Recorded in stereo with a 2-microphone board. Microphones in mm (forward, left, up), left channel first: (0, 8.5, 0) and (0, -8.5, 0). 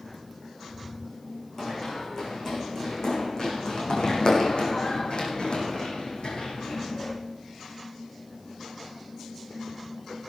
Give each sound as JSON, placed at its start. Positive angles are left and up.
{"t": 1.6, "sound": "running footsteps", "side_deg": 30, "distance_m": 5.5}